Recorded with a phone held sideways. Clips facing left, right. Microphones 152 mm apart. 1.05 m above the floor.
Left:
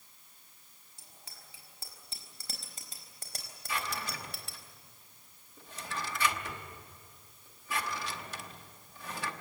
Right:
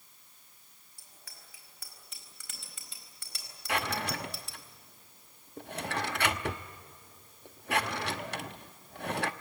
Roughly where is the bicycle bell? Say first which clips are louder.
Left 1 dB; left.